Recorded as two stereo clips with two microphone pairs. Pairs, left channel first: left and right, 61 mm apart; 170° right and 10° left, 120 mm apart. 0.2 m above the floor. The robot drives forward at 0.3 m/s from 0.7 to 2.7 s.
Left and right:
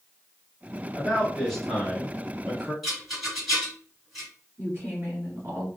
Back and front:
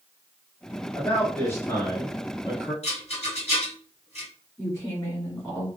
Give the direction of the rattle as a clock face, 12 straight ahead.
6 o'clock.